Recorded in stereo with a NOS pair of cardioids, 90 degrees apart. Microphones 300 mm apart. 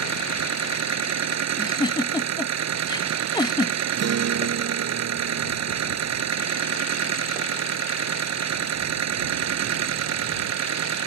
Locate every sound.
0.0 s a machine running: 60° right
1.6 s a giggle: 15° left
4.0 s a guitar: 55° right